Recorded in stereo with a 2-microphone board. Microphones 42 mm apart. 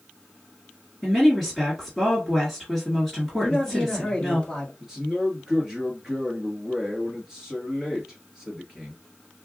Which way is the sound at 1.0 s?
5° left (ahead or behind).